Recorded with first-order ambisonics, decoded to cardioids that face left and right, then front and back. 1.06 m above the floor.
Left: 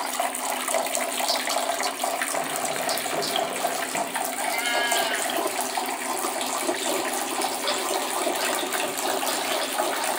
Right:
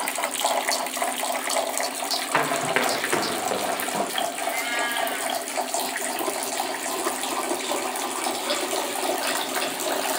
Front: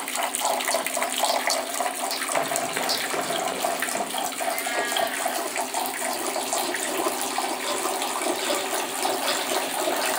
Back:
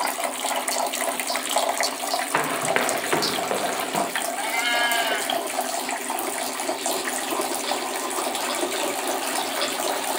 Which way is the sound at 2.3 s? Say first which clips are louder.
Right 5 dB, back 4 dB; 140° right.